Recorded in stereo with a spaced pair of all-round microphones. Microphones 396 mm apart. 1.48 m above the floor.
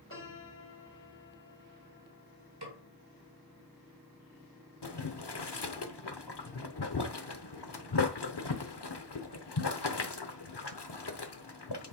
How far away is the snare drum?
About 1.9 m.